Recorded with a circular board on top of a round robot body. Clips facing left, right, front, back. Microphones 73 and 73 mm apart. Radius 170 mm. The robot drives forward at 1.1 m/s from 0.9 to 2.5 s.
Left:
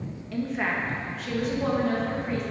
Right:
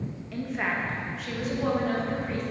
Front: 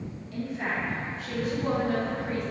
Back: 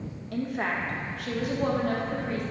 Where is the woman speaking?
Straight behind, 1.8 m.